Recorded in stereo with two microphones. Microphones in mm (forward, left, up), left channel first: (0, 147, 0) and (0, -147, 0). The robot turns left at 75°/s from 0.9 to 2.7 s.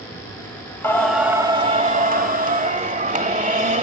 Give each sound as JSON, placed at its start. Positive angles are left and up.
{"t": 0.8, "sound": "singing", "side_deg": 5, "distance_m": 1.1}